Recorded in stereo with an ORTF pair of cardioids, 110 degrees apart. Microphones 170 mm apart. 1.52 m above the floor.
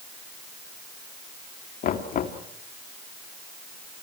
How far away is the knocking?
About 2 m.